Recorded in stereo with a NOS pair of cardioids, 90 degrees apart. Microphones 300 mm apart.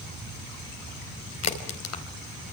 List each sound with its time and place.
1.4 s a crack: 55° left, 4.5 m